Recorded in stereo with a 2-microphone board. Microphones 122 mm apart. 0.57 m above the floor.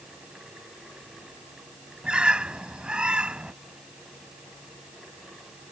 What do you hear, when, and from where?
2.0 s a bird: 10° right (ahead or behind)